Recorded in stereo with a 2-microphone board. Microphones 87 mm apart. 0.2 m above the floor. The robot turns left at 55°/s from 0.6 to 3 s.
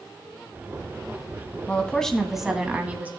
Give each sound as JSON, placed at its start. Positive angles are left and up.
{"t": 1.7, "sound": "a woman speaking", "azimuth_deg": 35, "distance_m": 1.4}